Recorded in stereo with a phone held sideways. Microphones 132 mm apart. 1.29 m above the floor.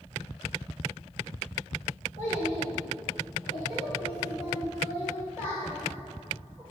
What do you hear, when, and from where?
2.2 s a child speaking: 65° left (ahead or behind), 2.0 m; by 6.6 s 40° left (ahead or behind), 6 m